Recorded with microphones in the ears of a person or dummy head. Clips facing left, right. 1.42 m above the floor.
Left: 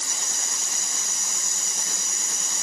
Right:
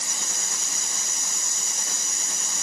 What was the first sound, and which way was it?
Only background noise.